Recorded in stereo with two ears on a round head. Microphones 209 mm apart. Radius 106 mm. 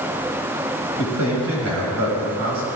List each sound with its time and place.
1.0 s a man speaking: 85° right, 5.5 m